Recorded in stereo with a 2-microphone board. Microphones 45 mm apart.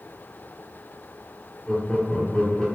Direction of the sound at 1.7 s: 10° left (ahead or behind).